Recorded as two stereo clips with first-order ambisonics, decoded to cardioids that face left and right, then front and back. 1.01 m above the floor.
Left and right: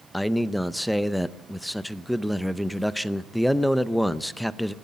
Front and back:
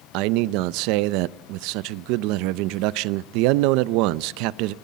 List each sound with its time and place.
0.1 s a man speaking: 175° right, 0.5 m